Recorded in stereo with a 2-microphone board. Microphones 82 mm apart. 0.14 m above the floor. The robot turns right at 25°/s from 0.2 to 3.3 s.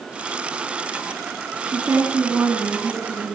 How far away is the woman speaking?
About 2.5 m.